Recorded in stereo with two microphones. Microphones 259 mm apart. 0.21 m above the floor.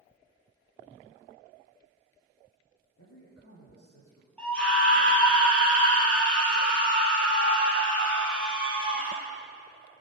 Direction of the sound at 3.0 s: 75° left (ahead or behind).